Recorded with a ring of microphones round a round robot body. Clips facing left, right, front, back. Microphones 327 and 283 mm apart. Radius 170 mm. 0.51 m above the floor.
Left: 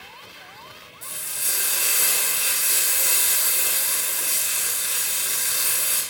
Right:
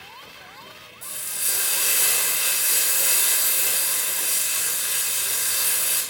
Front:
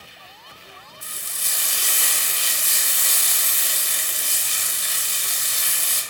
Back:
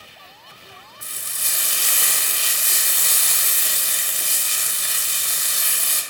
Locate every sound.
1.0 s frying: straight behind, 0.6 m